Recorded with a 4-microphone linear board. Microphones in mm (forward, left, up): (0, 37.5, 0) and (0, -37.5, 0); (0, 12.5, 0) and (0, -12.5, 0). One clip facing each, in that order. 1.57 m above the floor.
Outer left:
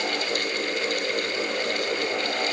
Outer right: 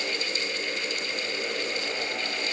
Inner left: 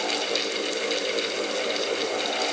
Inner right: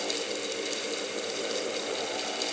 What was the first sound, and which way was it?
Only background noise.